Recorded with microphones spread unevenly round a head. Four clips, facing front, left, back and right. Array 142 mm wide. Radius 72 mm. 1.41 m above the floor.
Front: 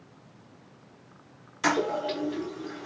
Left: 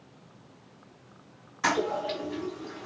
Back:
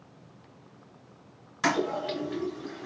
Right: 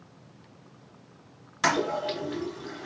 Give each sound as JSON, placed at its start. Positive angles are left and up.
{"t": 1.6, "sound": "a toilet flushing", "azimuth_deg": -100, "distance_m": 3.0}